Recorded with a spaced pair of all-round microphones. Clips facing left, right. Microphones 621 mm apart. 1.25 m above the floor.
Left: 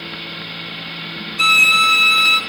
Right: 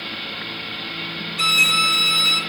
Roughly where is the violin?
Right.